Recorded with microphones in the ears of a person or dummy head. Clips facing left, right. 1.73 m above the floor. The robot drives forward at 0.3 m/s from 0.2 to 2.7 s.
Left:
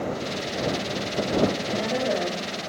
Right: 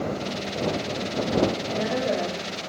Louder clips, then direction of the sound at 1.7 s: Even; 5° right (ahead or behind).